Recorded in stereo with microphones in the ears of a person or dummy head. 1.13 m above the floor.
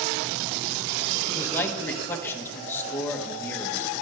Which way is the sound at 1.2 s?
10° left (ahead or behind).